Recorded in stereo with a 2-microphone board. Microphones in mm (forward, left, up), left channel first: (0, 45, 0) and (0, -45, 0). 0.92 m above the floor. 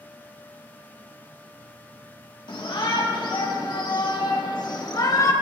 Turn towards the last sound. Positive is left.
turn(degrees=45)  # may be behind; listen again after turning